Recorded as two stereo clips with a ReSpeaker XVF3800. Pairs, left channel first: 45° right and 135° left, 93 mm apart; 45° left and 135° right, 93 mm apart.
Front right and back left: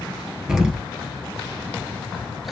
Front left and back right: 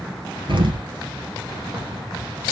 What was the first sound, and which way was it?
An explosion, 145° right.